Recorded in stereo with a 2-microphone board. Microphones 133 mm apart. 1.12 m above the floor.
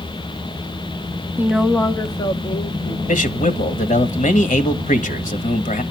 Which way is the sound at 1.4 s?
15° right (ahead or behind).